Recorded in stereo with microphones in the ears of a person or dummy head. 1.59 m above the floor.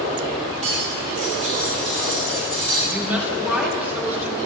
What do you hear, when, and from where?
0.6 s cutlery clinking: 40° right (ahead or behind), 1.8 m
2.9 s a woman speaking: 10° right (ahead or behind), 2 m